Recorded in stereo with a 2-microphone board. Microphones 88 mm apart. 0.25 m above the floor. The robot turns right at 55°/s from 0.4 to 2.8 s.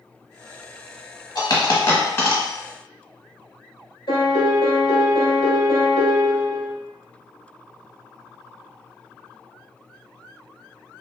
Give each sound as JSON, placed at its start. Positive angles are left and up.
{"t": 1.4, "sound": "a dropped coin", "side_deg": 50, "distance_m": 0.7}
{"t": 4.1, "sound": "a piano", "side_deg": 75, "distance_m": 1.0}